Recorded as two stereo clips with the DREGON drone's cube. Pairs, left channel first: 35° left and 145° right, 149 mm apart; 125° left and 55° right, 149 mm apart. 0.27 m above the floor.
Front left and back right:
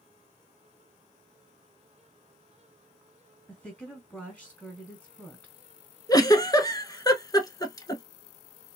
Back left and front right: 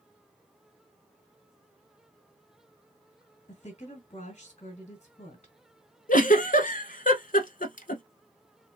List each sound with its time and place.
3.5 s a woman speaking: 120° left, 2.0 m
6.1 s a giggle: 100° left, 0.7 m